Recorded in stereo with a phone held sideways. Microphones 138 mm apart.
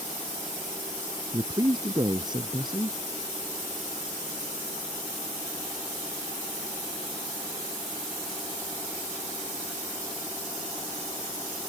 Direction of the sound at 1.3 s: 30° right (ahead or behind).